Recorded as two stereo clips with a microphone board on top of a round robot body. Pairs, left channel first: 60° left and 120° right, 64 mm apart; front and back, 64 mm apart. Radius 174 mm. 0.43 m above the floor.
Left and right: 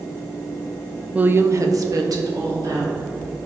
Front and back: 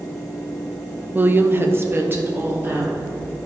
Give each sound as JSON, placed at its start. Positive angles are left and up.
{"t": 1.1, "sound": "a woman speaking", "azimuth_deg": -165, "distance_m": 0.8}